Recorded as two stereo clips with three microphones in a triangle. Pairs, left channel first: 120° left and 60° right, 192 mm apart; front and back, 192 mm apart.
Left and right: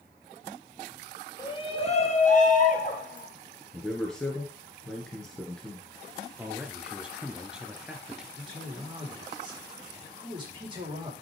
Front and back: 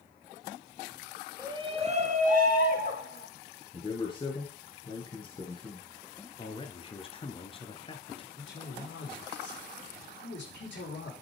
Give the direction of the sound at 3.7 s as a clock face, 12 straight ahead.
11 o'clock.